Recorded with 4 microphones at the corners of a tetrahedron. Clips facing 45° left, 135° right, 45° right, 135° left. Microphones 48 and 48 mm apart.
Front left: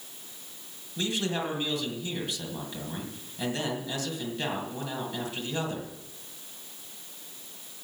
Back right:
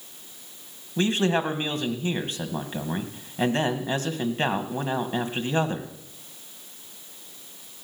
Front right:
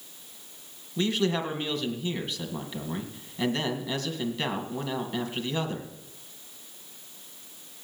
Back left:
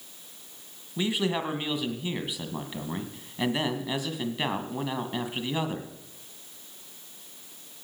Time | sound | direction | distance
1.0 | a man speaking | 155° right | 1.8 m